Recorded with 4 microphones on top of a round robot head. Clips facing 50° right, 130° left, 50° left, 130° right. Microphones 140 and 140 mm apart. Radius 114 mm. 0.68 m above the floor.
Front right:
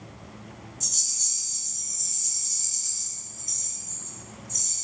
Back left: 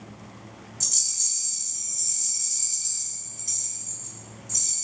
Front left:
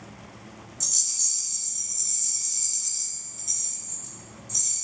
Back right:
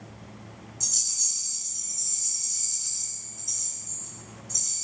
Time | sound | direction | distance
0.8 | a rattle | 115° left | 1.6 m